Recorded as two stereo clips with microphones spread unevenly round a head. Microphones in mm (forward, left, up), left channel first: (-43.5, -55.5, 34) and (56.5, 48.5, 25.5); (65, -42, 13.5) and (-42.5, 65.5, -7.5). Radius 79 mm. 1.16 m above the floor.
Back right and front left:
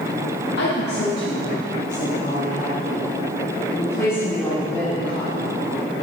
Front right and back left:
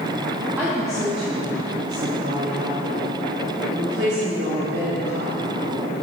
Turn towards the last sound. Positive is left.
turn(degrees=140)